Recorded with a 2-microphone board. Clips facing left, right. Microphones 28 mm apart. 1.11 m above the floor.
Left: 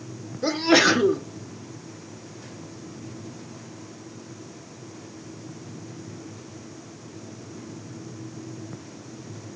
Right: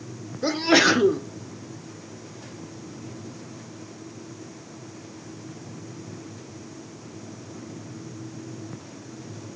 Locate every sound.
0.4 s a sneeze: 5° right (ahead or behind), 0.8 m